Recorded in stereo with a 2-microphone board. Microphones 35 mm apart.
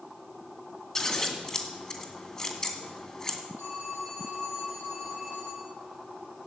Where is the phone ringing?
75° left (ahead or behind), 9.5 m.